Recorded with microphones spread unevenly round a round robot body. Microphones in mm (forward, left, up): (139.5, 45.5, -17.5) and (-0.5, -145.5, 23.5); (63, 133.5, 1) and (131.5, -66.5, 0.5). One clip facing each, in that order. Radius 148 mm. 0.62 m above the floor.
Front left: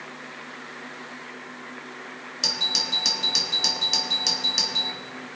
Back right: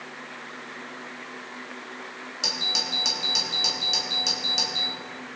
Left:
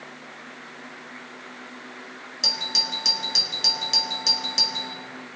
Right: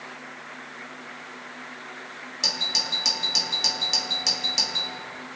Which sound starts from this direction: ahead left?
A doorbell, at 2.4 s.